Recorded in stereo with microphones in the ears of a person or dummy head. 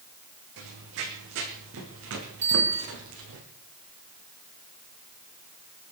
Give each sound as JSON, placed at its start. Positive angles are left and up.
{"t": 0.6, "sound": "running footsteps", "side_deg": -65, "distance_m": 4.0}
{"t": 2.4, "sound": "a bicycle bell", "side_deg": -10, "distance_m": 9.5}